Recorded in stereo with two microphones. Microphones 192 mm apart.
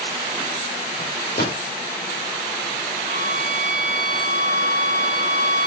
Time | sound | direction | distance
1.0 | a microwave | 60° left (ahead or behind) | 4.5 m
3.0 | a violin | 45° right (ahead or behind) | 3.5 m